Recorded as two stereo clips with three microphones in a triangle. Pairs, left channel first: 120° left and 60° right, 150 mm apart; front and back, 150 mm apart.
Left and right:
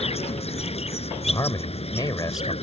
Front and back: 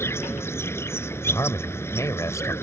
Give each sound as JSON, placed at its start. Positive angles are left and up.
{"t": 0.0, "sound": "an insect", "azimuth_deg": 75}
{"t": 1.2, "sound": "a man speaking", "azimuth_deg": 65}